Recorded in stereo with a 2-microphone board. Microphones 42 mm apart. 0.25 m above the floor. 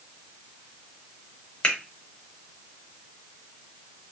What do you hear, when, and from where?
1.6 s a finger snap: 20° left (ahead or behind), 1.0 m